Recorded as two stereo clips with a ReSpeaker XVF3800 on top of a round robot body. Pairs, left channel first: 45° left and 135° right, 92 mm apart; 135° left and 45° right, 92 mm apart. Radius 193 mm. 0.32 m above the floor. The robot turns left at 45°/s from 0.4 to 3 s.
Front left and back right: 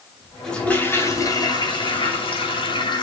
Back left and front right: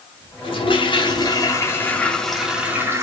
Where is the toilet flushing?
130° left, 3 m; by 3.0 s 15° left, 3 m.